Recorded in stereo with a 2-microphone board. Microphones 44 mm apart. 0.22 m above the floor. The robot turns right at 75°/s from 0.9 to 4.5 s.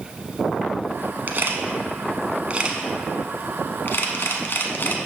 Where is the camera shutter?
45° right (ahead or behind), 0.8 m; by 5.0 s 50° left (ahead or behind), 0.8 m.